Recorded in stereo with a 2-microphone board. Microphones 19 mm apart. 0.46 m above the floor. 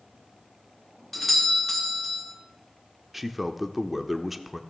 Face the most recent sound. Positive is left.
turn(degrees=-10)  # may be behind; listen again after turning